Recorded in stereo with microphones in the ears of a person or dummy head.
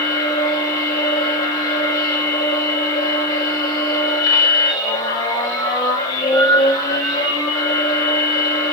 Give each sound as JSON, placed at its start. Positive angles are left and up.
{"t": 0.0, "sound": "a machine running", "side_deg": 20, "distance_m": 6.5}